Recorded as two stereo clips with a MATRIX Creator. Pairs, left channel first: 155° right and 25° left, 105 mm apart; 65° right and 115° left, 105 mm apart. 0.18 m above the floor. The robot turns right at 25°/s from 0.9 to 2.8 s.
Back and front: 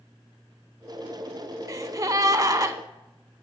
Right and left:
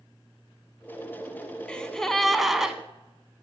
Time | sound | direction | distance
1.7 | a gasp | 5° left | 0.5 m